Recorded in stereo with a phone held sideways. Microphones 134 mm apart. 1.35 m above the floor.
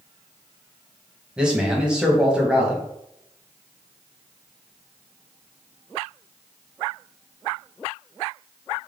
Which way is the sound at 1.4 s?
5° right (ahead or behind).